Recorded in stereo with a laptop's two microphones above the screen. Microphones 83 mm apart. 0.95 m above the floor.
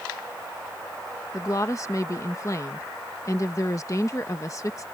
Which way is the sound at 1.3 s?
40° left (ahead or behind).